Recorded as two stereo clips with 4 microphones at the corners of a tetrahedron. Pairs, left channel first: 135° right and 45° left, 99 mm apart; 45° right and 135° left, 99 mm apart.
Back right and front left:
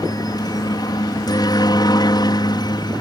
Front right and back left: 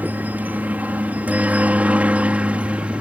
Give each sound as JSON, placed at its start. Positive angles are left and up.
{"t": 0.0, "sound": "a helicopter", "azimuth_deg": -160}